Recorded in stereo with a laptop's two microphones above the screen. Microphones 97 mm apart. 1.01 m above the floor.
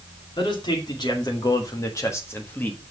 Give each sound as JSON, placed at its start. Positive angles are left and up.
{"t": 0.4, "sound": "a man speaking", "side_deg": 50, "distance_m": 2.5}